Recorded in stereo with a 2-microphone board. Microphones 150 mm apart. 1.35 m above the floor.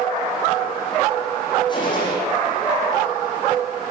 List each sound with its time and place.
1.7 s a gunshot: 30° left (ahead or behind), 9.5 m